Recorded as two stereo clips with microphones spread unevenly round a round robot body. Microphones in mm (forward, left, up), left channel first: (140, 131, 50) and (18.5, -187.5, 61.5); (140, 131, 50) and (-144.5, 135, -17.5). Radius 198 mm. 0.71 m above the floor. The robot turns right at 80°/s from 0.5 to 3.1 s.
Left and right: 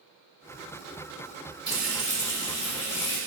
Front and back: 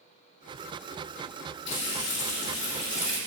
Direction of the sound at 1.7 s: 35° right.